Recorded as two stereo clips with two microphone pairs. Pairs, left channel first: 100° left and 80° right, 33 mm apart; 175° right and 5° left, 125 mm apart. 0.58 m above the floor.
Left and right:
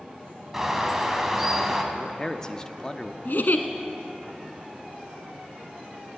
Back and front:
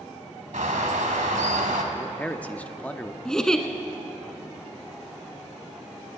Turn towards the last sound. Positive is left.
turn(degrees=95)